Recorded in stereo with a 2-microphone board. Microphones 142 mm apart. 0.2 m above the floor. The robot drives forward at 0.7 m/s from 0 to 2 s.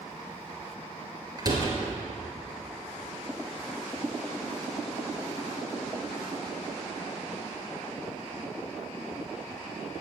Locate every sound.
1.4 s a door slam: 30° right (ahead or behind), 3 m